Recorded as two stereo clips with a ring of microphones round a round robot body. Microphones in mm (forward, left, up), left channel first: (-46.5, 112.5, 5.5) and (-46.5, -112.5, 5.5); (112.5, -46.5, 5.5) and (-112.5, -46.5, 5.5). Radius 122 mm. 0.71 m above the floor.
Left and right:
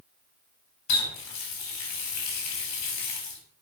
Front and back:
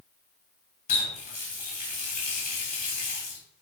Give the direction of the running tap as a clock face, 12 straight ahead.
10 o'clock.